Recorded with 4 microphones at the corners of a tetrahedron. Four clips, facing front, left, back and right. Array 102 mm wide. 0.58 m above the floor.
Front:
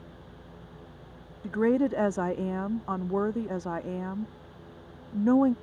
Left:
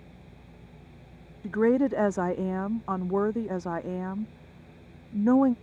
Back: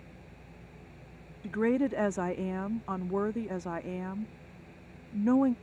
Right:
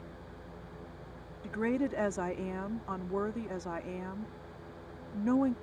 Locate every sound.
1.4 s a woman speaking: 50° left